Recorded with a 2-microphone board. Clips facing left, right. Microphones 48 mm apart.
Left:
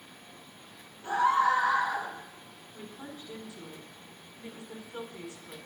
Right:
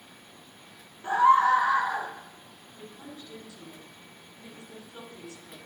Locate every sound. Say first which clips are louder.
1.0 s a scream: right 5 dB; 25° right (ahead or behind), 1.2 m
2.7 s a woman speaking: left 1 dB; 20° left (ahead or behind), 1.8 m